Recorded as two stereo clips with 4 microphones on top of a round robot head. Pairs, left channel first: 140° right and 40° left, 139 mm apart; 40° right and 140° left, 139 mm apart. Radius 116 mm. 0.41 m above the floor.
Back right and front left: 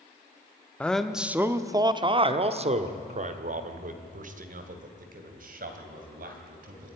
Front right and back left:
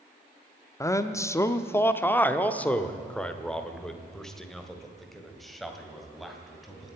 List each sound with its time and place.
0.8 s a man speaking: 70° right, 0.9 m; by 7.0 s 50° left, 3 m